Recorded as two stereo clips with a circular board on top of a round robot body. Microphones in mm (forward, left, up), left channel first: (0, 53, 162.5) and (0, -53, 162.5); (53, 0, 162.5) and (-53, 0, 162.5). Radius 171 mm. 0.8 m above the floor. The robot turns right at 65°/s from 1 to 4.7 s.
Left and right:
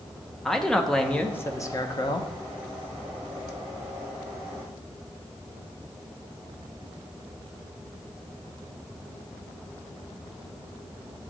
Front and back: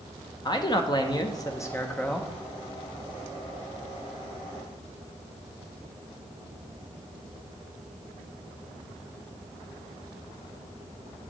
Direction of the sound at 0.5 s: 5° left.